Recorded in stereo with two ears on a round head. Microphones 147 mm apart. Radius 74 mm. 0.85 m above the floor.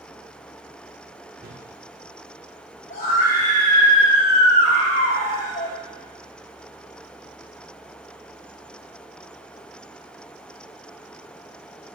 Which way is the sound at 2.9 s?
45° left (ahead or behind).